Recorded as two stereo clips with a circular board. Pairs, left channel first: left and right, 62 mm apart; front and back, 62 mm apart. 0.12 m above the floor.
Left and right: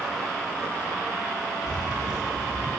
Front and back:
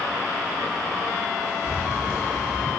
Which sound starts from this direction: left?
Keys jangling, at 1.7 s.